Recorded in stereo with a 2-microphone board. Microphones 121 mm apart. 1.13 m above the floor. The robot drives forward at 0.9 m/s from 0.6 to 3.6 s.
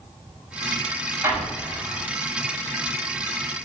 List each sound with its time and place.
1.2 s an explosion: 25° right (ahead or behind), 4.5 m